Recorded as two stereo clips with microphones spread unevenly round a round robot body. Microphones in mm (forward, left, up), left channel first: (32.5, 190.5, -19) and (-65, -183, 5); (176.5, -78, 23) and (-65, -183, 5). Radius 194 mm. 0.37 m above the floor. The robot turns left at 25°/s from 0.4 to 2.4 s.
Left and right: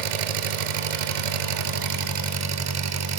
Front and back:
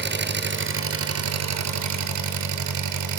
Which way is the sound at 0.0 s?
105° right.